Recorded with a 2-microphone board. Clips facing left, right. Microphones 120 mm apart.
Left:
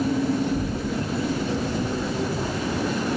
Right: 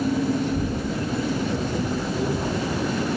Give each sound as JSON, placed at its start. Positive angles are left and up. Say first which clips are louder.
{"t": 0.4, "sound": "a child speaking", "louder": "even", "side_deg": -65, "distance_m": 7.5}